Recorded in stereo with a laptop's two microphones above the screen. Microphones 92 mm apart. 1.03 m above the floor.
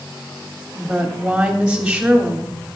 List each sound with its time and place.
0.8 s a woman speaking: 10° right (ahead or behind), 3 m